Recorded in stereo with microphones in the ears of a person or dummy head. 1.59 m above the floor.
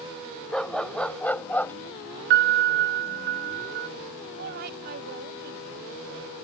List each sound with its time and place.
0.5 s a dog barking: 10° left (ahead or behind); by 1.7 s 20° left (ahead or behind)
2.3 s a piano: 55° right (ahead or behind)
4.4 s a woman speaking: 65° right (ahead or behind)